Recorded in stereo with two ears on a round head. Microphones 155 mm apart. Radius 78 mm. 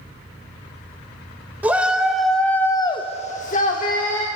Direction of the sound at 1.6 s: 10° right (ahead or behind).